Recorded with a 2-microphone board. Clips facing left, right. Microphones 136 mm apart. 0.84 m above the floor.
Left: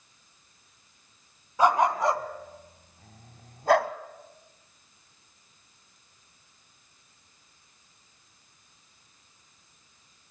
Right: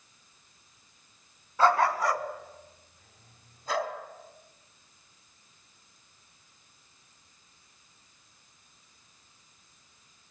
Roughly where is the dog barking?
Centre.